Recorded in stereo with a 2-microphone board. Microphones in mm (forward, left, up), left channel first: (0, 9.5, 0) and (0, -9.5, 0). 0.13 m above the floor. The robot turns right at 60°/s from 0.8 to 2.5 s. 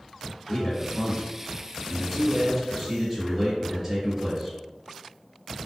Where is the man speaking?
85° left, 1.8 m; by 4.6 s 170° right, 1.8 m.